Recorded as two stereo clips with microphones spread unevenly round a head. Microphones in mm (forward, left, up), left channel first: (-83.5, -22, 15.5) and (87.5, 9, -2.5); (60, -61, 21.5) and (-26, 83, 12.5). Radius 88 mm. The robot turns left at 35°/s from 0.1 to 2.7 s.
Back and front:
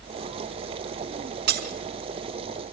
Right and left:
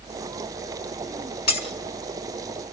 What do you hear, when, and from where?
1.5 s breaking glass: 25° right, 4 m; by 1.7 s 35° right, 4 m